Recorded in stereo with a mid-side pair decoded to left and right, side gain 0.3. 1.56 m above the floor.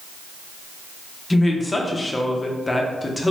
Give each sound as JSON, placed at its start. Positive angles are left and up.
{"t": 1.3, "sound": "a woman speaking", "azimuth_deg": 25, "distance_m": 0.7}